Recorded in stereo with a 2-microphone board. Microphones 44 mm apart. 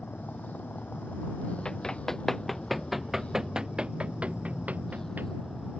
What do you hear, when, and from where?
0.0 s a vehicle: 40° left (ahead or behind); by 5.8 s 15° left (ahead or behind)
1.6 s running footsteps: 15° left (ahead or behind); by 5.3 s 45° right (ahead or behind)